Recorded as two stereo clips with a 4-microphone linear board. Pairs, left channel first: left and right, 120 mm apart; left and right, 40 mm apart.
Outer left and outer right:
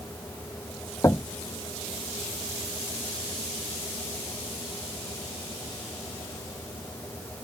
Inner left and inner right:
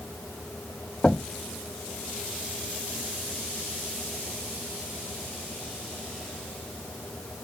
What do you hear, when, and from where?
1.0 s knocking: 25° left (ahead or behind)